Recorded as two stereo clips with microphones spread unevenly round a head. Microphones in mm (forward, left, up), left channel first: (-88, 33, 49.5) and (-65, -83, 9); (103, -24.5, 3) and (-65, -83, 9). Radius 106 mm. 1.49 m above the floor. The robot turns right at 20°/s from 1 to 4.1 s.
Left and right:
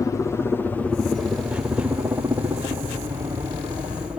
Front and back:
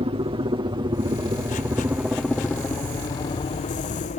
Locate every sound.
0.0 s a helicopter: 170° left; by 4.2 s 10° right